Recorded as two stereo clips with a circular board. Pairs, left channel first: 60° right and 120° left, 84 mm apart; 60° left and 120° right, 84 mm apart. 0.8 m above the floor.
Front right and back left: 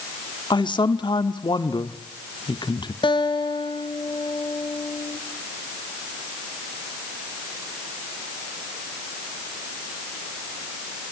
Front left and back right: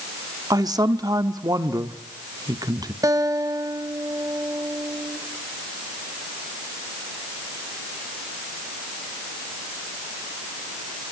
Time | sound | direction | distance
0.5 | a man speaking | 80° right | 1.4 m
3.0 | a guitar | 75° right | 1.6 m